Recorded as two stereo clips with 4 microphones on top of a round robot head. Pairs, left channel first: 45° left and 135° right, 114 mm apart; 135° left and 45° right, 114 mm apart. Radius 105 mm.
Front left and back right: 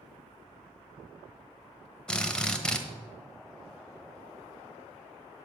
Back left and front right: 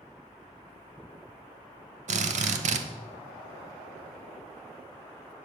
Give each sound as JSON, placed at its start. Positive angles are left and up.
{"t": 2.1, "sound": "a drill", "azimuth_deg": -40, "distance_m": 1.0}